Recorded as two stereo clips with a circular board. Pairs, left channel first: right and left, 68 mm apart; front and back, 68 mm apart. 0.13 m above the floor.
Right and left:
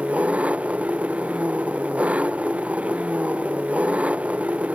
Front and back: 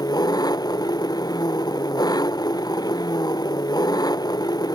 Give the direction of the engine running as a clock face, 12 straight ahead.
11 o'clock.